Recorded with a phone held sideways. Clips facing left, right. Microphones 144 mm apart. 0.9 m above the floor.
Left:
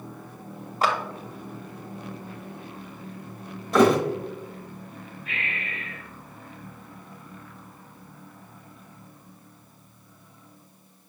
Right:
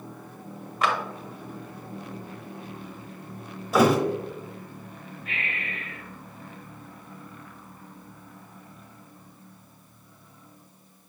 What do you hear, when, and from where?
0.8 s a clap: 35° left (ahead or behind), 0.7 m
3.7 s a thud: 5° right (ahead or behind), 0.7 m
5.2 s breathing: 55° right (ahead or behind), 1.9 m